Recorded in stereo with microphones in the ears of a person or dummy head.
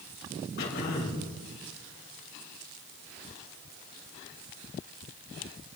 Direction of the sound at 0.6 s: 65° left (ahead or behind).